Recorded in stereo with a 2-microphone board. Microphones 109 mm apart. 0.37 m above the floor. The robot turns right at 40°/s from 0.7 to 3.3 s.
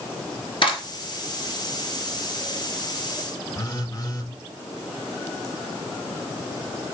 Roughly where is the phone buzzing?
Left.